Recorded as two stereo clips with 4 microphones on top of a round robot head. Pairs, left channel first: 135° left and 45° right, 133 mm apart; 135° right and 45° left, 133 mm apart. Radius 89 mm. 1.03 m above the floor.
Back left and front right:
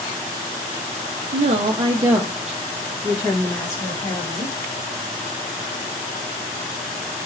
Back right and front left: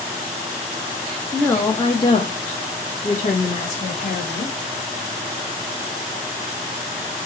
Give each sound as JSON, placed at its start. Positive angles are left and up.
{"t": 1.3, "sound": "a woman speaking", "azimuth_deg": -55, "distance_m": 0.6}